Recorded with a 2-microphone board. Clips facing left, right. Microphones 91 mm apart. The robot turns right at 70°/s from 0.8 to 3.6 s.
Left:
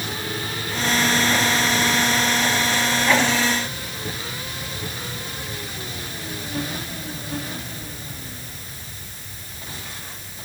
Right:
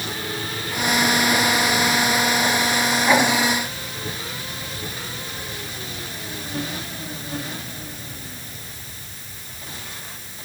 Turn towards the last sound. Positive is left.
No sound to turn to.